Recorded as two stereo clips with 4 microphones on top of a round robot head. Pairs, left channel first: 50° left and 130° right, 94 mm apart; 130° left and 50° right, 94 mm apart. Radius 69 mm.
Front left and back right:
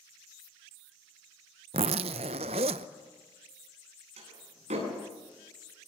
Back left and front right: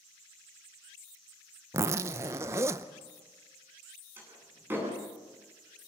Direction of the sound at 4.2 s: 115° right.